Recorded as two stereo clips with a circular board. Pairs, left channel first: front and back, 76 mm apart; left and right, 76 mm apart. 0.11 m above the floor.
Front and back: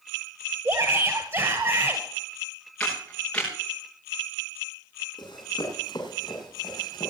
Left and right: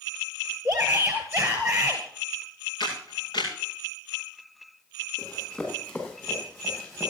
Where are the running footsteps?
20° left, 8.5 m; by 7.1 s 25° left, 8 m.